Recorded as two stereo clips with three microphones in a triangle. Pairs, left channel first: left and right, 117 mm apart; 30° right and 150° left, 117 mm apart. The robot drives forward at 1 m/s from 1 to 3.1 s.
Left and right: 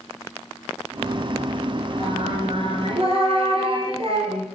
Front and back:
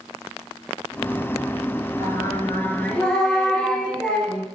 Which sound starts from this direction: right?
Singing, at 2.0 s.